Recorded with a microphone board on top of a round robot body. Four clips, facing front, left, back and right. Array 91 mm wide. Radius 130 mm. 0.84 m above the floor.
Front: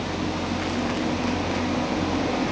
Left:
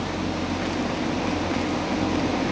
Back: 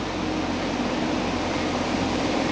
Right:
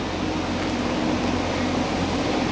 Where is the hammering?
No hammering in this recording.